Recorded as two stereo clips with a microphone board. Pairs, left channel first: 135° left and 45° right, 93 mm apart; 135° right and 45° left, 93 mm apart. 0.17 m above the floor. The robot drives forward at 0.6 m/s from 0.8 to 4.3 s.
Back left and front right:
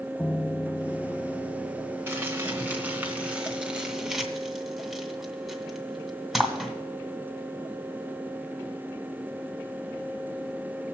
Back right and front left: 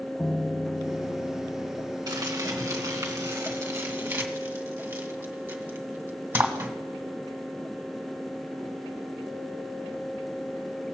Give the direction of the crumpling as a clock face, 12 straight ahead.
12 o'clock.